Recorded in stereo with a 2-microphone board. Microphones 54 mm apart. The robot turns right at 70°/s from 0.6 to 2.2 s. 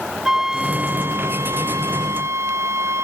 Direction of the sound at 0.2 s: 170° right.